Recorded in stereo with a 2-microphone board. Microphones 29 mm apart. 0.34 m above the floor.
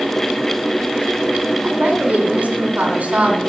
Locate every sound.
1.6 s a woman speaking: 60° right (ahead or behind), 2.5 m